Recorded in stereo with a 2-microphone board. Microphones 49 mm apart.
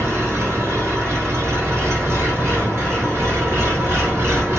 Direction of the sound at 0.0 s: 65° right (ahead or behind).